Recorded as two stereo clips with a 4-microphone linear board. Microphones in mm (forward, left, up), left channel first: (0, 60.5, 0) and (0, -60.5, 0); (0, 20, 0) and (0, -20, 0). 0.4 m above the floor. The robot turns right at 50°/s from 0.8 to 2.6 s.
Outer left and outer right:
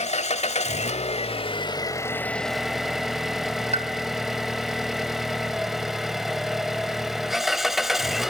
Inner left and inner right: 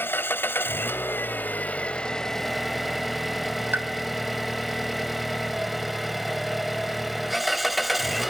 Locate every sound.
0.0 s an engine running: 90° left, 1.2 m; by 8.3 s straight behind, 1.2 m
3.7 s a pop: 60° right (ahead or behind), 1.4 m